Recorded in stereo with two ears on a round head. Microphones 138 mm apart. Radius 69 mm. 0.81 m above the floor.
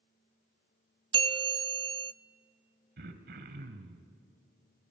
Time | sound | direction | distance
1.1 | a bell | 30° right (ahead or behind) | 0.6 m
3.0 | throat clearing | 70° right (ahead or behind) | 1.6 m